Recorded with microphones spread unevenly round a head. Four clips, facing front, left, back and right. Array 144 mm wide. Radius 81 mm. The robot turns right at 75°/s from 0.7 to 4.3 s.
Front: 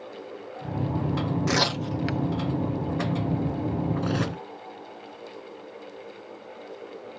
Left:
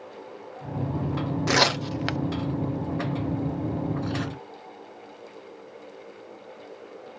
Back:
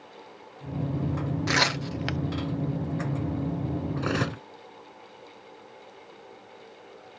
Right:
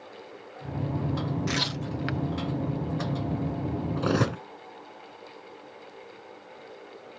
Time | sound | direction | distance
1.5 | tearing paper | 65° left | ?
4.0 | cutlery clinking | 115° right | ?